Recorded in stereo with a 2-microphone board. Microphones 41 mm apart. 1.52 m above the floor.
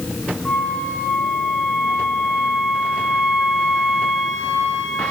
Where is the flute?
15° left (ahead or behind), 2.5 m.